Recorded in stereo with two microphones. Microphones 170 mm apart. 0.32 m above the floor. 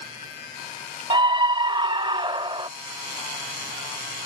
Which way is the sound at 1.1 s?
30° right (ahead or behind).